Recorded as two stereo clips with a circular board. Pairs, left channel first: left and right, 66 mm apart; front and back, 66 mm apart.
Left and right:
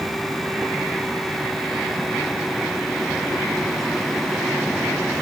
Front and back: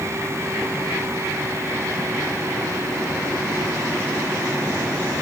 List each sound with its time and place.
Only background noise.